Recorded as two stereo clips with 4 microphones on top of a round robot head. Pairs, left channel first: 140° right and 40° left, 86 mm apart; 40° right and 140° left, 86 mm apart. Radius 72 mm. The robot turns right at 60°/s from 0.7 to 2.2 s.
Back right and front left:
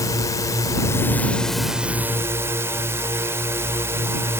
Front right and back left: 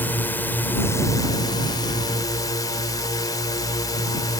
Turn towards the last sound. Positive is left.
turn(degrees=-15)